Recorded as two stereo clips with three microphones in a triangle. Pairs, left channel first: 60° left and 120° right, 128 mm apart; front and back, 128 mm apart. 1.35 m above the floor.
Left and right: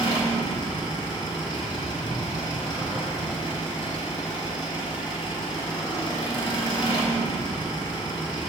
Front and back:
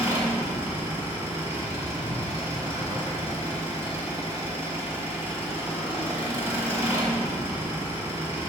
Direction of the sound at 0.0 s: 110° left.